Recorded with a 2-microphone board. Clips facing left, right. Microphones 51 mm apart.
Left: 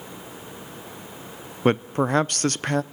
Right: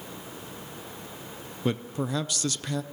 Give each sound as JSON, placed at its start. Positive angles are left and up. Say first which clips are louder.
{"t": 1.6, "sound": "a man speaking", "louder": "left 8 dB", "side_deg": 55, "distance_m": 0.5}